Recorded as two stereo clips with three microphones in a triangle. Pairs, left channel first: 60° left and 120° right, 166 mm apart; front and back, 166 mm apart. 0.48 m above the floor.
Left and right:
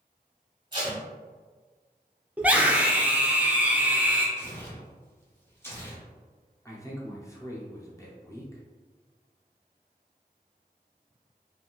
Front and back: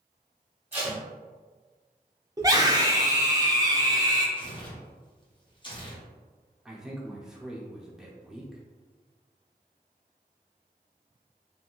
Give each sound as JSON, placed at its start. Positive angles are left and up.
{"t": 0.7, "sound": "tape being pulled", "azimuth_deg": -120, "distance_m": 1.4}
{"t": 2.4, "sound": "a scream", "azimuth_deg": 175, "distance_m": 0.7}
{"t": 4.4, "sound": "tearing paper", "azimuth_deg": 0, "distance_m": 0.9}
{"t": 6.7, "sound": "a man speaking", "azimuth_deg": 95, "distance_m": 0.7}